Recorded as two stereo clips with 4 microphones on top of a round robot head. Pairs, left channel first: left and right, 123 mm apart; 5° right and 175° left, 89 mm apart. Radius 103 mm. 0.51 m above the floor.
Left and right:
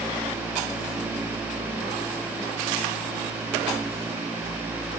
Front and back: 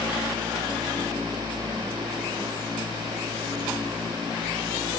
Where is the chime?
I don't hear a chime.